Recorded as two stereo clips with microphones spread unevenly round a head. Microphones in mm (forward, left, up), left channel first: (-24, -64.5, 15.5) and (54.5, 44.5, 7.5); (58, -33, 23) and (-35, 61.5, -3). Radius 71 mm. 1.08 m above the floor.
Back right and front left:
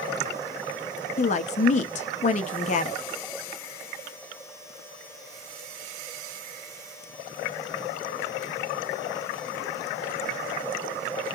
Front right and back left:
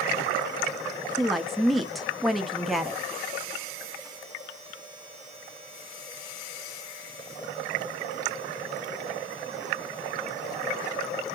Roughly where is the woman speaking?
Behind right.